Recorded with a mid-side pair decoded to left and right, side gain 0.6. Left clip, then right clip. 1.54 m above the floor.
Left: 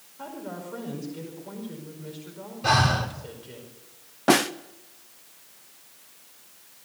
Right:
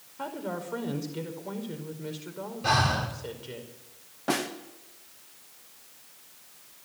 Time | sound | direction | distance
0.2 | a woman speaking | 30° right | 5 m
2.6 | breathing | 15° left | 3 m
4.3 | a snare drum | 40° left | 0.9 m